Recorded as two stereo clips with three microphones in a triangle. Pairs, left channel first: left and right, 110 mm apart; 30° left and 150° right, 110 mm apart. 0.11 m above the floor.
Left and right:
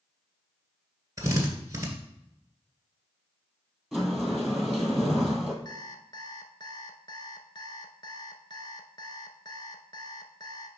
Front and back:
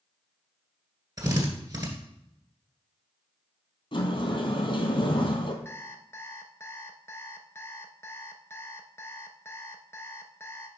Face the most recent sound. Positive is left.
turn(degrees=80)